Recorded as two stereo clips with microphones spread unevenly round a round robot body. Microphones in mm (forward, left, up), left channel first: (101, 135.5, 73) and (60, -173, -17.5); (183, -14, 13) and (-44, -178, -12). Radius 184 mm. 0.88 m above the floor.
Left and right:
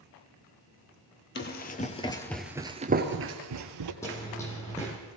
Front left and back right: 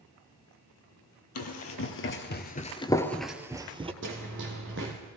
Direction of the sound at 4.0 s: 155° left.